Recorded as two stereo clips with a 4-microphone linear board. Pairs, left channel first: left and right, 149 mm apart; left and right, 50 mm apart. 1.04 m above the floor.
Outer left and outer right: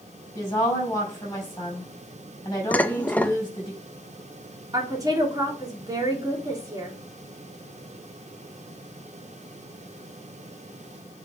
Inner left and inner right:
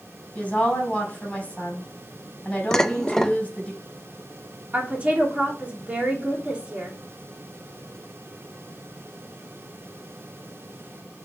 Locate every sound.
0.3 s a woman speaking: 20° left (ahead or behind), 5.5 m
2.7 s dishes clattering: 10° left (ahead or behind), 0.5 m
4.7 s a woman speaking: 25° right (ahead or behind), 3 m